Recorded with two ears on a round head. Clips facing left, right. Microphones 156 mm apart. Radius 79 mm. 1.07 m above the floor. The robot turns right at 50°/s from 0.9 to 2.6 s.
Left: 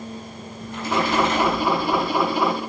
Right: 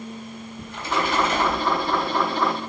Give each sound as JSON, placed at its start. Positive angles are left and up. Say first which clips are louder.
{"t": 0.6, "sound": "a splash", "louder": "left 3 dB", "azimuth_deg": -95, "distance_m": 4.0}